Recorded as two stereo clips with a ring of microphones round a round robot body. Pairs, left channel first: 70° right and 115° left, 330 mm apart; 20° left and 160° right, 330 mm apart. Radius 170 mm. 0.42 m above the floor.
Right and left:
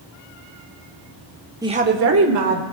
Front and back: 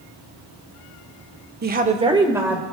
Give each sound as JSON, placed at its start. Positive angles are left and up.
{"t": 1.6, "sound": "a woman speaking", "azimuth_deg": -175, "distance_m": 1.1}